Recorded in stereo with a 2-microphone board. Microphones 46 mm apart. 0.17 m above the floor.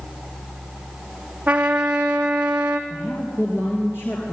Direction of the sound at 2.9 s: 55° left (ahead or behind).